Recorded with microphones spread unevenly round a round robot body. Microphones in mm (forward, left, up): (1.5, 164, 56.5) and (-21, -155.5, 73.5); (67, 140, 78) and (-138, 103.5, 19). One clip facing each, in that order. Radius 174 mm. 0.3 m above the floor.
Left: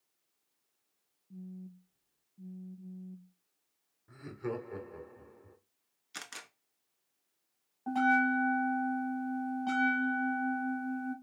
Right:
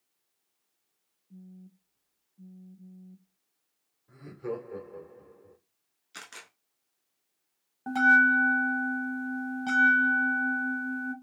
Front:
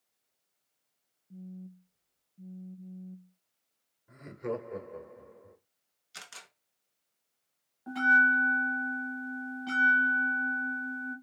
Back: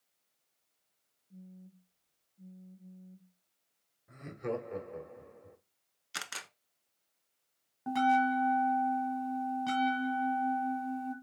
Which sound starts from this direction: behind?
A camera shutter, at 6.1 s.